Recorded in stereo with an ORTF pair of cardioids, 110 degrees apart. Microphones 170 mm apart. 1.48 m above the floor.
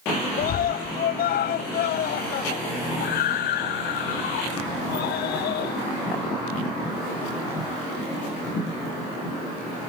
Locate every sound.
0.4 s a scream: 60° left; by 5.8 s 75° left